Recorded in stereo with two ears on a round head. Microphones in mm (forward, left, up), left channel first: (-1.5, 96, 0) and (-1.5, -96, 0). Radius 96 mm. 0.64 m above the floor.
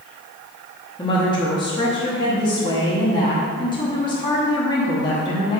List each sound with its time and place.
1.0 s a woman speaking: 20° left (ahead or behind), 1.0 m